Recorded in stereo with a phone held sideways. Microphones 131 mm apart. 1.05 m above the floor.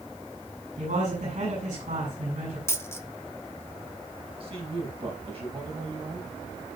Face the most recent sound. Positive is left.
turn(degrees=-50)  # may be behind; listen again after turning